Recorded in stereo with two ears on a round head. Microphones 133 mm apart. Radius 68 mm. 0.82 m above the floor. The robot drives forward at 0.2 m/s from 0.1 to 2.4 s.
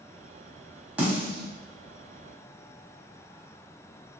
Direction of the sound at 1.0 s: 10° right (ahead or behind).